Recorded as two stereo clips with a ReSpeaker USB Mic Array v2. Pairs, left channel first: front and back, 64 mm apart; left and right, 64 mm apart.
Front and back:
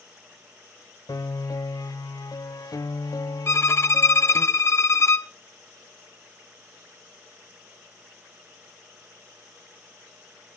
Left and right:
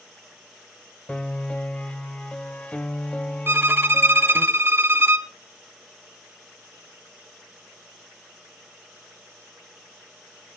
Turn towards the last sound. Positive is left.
turn(degrees=-40)